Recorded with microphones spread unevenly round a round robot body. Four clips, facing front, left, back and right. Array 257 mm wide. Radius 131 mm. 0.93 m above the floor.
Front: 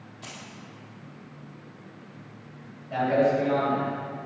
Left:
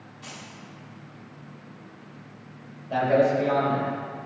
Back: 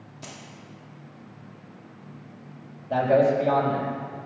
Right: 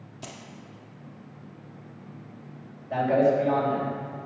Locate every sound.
0.2 s keys jangling: 100° right, 1.7 m
2.9 s a man speaking: 160° left, 4 m